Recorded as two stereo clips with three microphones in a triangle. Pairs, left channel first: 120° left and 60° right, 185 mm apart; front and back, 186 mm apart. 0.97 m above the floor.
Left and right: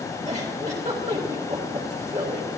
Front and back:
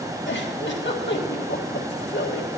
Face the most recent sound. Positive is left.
turn(degrees=-10)